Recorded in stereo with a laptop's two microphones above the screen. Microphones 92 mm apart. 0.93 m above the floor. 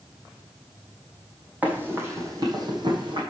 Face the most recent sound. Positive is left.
turn(degrees=-60)  # may be behind; listen again after turning